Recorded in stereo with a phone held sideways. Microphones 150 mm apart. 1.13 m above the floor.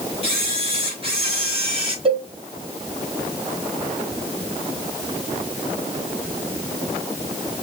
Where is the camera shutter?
35° right (ahead or behind), 3 m.